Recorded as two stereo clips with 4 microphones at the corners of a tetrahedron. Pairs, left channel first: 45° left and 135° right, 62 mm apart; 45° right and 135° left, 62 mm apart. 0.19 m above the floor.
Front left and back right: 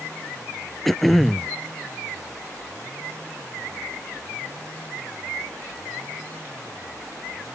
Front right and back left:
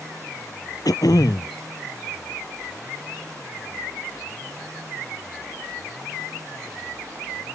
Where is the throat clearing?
45° right.